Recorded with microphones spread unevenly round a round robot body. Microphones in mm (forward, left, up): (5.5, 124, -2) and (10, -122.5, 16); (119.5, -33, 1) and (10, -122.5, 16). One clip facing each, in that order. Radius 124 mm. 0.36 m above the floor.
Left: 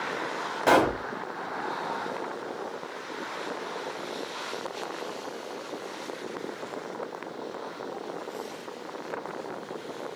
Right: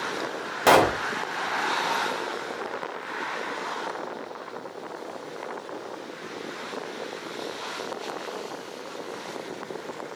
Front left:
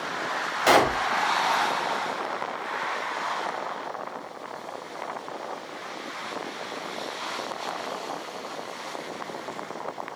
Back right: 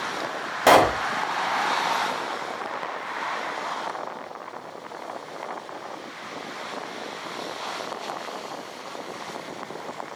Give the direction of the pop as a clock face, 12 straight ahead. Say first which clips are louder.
Right 2 dB, back right 4 dB; 4 o'clock.